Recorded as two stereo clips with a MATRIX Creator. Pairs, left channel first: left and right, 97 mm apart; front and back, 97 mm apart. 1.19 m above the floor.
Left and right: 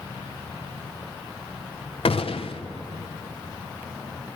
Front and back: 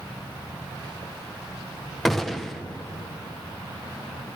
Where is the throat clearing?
No throat clearing in this recording.